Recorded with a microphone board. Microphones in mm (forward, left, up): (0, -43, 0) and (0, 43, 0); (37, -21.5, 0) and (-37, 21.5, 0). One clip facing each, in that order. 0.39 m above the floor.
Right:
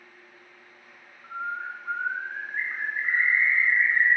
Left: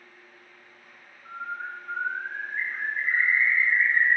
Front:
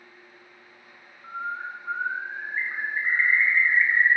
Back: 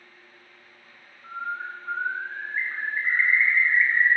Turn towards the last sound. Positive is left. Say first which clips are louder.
# right 2 dB, even
turn(degrees=-105)